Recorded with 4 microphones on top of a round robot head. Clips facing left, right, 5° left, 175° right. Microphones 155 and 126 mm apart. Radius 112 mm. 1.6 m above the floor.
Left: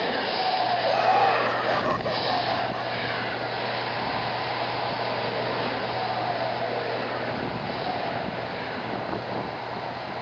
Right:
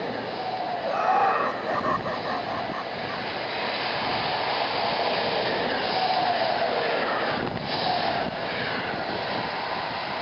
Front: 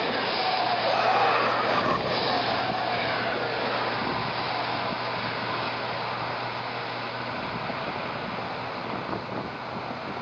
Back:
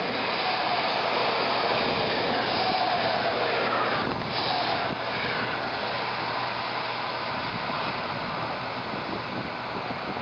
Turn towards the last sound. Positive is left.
turn(degrees=15)